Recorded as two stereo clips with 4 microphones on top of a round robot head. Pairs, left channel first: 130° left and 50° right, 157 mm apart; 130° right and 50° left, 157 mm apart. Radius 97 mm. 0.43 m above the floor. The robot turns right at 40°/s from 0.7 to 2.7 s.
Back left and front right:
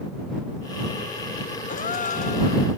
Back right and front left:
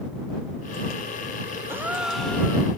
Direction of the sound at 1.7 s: 120° left.